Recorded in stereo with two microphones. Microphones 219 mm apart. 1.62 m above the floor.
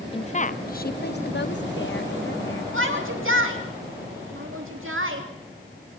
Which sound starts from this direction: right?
A shout, at 2.7 s.